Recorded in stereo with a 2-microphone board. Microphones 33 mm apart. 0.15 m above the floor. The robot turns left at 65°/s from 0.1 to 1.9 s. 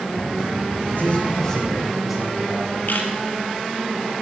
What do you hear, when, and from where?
0.9 s a man speaking: 55° left, 8 m; by 2.8 s 10° right, 8 m
2.9 s a camera shutter: 65° left (ahead or behind), 3 m